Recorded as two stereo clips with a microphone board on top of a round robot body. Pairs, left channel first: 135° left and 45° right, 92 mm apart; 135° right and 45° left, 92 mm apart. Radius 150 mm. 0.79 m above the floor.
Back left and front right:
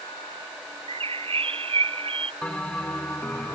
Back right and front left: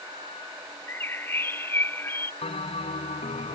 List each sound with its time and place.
0.9 s a bird: 65° right
2.4 s a bell: 145° right